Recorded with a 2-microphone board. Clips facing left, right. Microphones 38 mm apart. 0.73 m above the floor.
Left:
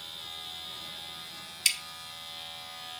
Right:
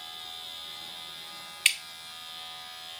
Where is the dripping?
40° right (ahead or behind), 1.0 m.